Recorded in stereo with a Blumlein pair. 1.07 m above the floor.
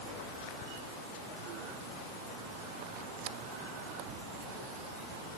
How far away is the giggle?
I don't hear a giggle.